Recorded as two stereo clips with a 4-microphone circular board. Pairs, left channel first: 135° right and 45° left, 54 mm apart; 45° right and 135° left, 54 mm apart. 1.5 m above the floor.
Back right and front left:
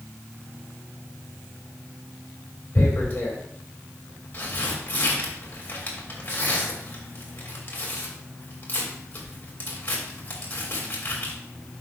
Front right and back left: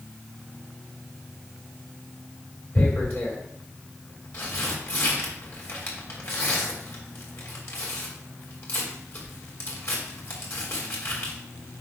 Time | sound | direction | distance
2.8 | tearing paper | 80° right | 2.5 m